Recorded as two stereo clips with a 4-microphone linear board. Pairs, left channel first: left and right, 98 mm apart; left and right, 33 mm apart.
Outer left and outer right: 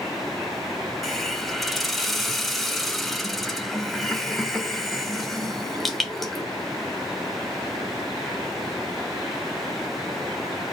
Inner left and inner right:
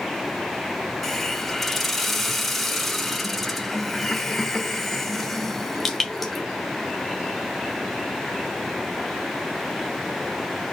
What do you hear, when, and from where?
1.0 s a hiss: centre (ahead or behind), 1.0 m